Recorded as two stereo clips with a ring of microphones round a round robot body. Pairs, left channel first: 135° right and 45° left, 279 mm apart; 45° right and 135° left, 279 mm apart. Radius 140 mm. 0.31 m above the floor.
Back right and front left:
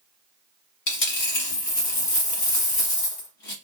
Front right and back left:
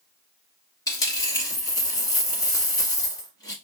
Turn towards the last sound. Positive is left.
turn(degrees=-125)